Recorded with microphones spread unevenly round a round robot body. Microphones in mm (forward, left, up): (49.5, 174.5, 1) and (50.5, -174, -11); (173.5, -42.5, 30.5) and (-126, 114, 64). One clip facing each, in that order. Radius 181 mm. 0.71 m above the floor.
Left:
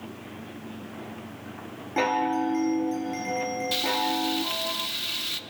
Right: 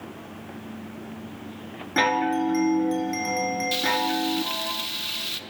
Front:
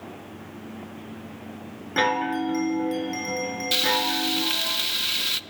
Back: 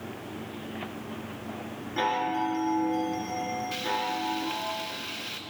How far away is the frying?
About 0.6 m.